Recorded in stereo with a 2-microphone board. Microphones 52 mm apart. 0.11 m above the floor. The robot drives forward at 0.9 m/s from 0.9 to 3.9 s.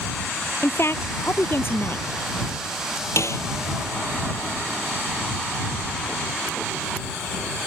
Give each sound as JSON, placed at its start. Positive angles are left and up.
{"t": 0.6, "sound": "a woman speaking", "side_deg": 55}
{"t": 3.2, "sound": "a snare drum", "side_deg": 65}